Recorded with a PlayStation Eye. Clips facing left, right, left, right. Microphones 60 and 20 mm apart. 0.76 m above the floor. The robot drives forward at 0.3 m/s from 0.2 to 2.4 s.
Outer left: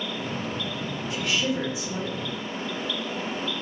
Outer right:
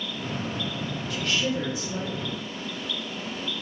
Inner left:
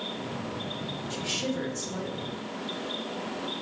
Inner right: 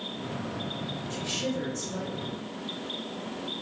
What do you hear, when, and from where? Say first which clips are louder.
1.1 s a woman speaking: outer left 1 dB, inner left 1 dB; 20° left (ahead or behind), 0.8 m; by 2.3 s 15° left (ahead or behind), 1.1 m